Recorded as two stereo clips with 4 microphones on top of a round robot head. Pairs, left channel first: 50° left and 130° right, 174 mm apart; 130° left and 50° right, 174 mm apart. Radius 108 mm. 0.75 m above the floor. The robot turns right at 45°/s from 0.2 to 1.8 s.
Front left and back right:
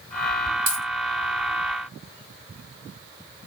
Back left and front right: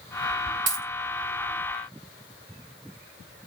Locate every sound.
0.7 s a dropped coin: 70° right, 3 m; by 0.8 s 60° right, 3 m